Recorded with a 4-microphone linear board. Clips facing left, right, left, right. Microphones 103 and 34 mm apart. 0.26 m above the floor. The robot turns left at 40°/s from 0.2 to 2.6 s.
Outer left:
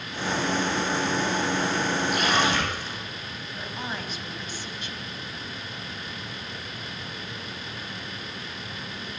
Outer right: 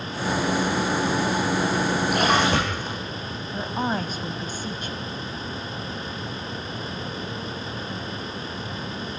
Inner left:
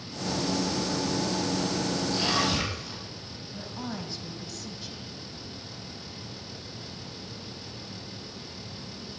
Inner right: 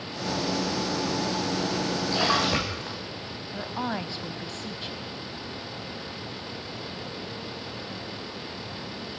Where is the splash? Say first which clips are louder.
Outer right 4 dB, inner right 4 dB; 65° right (ahead or behind), 7.5 m; by 3.0 s 45° right (ahead or behind), 7.5 m.